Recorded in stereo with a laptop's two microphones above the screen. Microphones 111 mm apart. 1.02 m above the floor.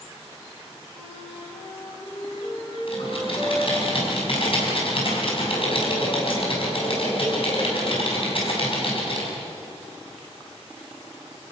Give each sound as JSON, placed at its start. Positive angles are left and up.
{"t": 0.9, "sound": "a flute", "side_deg": 45, "distance_m": 8.0}
{"t": 2.9, "sound": "typing on a keyboard", "side_deg": 55, "distance_m": 5.0}